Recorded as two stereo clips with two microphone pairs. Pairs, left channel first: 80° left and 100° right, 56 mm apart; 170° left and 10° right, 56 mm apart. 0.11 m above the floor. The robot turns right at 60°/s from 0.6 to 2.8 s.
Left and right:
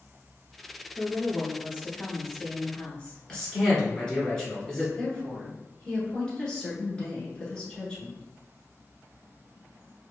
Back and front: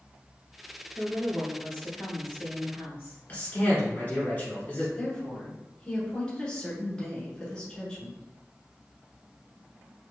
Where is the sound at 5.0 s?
125° left, 1.1 m.